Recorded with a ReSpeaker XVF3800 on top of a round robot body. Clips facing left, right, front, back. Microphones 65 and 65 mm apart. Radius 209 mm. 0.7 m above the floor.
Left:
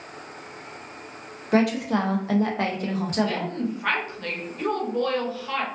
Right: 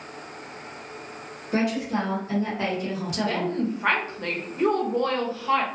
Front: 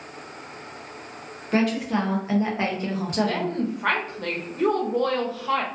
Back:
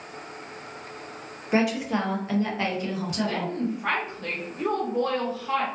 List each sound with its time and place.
1.5 s a woman speaking: 105° left, 0.9 m; by 3.5 s 35° left, 1.0 m
3.2 s a woman speaking: 25° right, 1.0 m